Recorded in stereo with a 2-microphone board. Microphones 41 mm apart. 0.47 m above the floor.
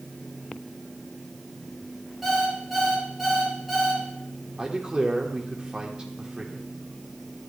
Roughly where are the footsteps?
I don't hear footsteps.